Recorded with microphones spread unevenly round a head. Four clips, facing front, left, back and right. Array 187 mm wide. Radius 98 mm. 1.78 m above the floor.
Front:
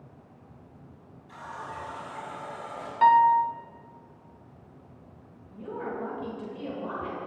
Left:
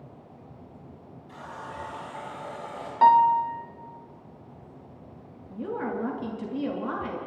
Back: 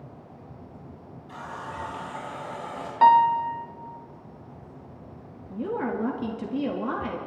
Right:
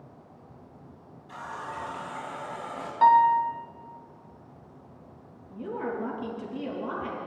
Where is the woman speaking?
175° left, 3.5 m.